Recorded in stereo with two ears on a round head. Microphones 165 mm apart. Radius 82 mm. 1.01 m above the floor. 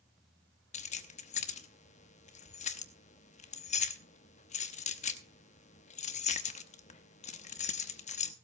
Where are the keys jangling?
45° left (ahead or behind), 0.9 m.